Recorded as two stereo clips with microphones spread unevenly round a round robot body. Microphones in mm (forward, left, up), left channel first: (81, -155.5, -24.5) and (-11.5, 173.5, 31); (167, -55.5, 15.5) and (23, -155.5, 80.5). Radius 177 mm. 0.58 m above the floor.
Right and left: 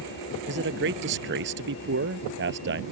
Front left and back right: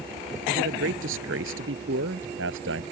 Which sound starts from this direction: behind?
A man speaking, at 0.5 s.